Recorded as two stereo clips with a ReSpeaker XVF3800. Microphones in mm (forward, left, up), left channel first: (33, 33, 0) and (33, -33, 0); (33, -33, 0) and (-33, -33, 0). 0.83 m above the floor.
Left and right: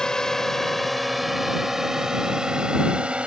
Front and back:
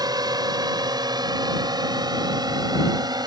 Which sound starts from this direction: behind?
A drone, at 0.0 s.